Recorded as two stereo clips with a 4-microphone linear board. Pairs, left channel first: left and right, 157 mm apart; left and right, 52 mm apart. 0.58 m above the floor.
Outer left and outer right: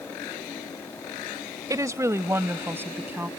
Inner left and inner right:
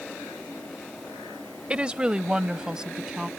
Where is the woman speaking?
20° right (ahead or behind); by 3.3 s 10° right (ahead or behind).